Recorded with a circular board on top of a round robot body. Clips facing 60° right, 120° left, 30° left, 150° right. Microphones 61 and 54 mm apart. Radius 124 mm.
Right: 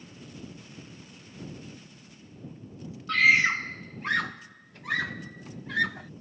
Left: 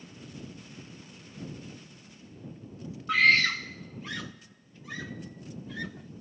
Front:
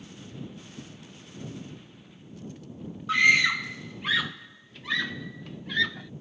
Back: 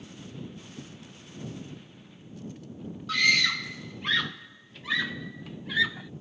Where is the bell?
I don't hear a bell.